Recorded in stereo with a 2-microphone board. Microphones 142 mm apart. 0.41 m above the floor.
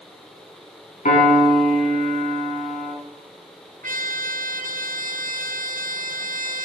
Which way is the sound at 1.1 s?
60° left (ahead or behind).